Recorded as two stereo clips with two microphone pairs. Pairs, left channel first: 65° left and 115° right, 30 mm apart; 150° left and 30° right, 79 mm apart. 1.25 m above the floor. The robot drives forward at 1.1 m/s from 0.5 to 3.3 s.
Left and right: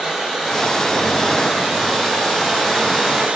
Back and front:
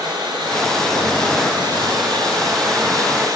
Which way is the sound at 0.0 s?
25° right.